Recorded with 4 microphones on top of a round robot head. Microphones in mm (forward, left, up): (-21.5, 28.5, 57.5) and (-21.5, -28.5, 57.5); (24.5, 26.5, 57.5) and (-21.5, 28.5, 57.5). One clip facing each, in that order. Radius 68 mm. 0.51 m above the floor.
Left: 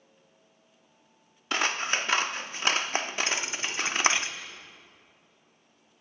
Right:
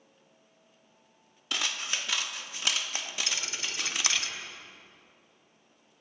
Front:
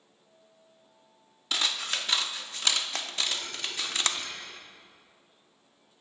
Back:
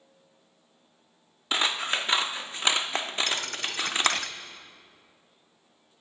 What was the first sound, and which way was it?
Scissors, 120° left.